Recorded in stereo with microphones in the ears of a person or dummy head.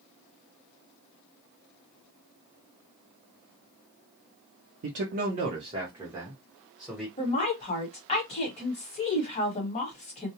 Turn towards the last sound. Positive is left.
turn(degrees=30)  # may be behind; listen again after turning